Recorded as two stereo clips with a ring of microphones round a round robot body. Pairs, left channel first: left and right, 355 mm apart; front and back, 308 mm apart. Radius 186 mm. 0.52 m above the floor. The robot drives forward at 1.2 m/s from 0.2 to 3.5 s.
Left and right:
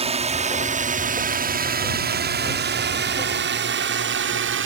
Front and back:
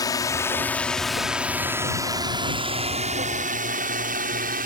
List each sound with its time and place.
0.0 s a drone: 55° right; by 4.7 s 130° right